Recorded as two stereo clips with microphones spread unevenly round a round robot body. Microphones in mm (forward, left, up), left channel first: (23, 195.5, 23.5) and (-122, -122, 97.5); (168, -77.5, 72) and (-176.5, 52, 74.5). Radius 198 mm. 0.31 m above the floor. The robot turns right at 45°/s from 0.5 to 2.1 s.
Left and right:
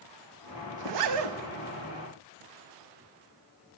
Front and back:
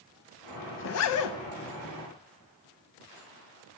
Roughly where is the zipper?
Right.